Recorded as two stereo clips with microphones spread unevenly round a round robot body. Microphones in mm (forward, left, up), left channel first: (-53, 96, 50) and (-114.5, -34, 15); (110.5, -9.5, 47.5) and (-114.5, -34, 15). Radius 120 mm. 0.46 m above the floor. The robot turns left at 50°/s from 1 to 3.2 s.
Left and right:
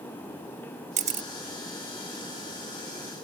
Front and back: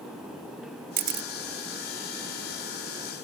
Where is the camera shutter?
130° right; by 1.3 s 145° right.